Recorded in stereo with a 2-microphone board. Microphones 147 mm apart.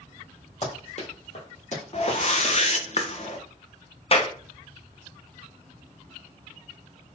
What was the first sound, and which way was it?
Running footsteps, 45° left (ahead or behind).